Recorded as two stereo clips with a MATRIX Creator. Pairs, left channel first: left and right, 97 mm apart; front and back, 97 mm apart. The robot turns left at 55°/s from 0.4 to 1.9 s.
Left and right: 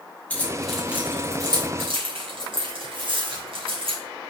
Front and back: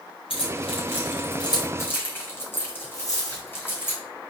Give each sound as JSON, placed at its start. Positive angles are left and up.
{"t": 0.3, "sound": "keys jangling", "azimuth_deg": 15, "distance_m": 3.0}
{"t": 3.0, "sound": "a dropped coin", "azimuth_deg": -55, "distance_m": 3.0}